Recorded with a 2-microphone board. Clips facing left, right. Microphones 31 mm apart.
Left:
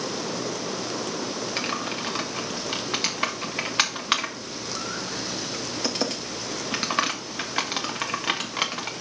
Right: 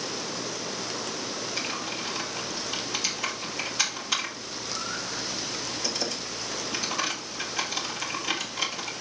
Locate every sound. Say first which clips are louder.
1.6 s typing on a keyboard: left 4 dB; 60° left (ahead or behind), 1.5 m